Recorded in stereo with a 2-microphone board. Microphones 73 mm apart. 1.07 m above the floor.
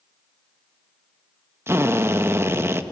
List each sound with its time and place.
1.7 s a drill: 35° right (ahead or behind), 0.8 m